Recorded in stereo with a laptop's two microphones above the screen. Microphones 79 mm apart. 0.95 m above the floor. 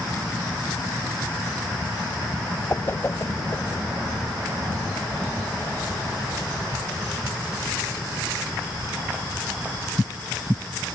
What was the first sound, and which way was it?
A whoosh, 25° left (ahead or behind).